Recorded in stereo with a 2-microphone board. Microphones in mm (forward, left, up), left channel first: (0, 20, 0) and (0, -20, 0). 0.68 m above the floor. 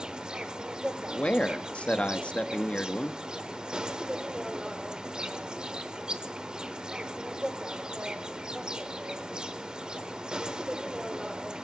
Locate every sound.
0.0 s an insect: 20° right (ahead or behind), 0.9 m
1.1 s a man speaking: 30° left (ahead or behind), 0.8 m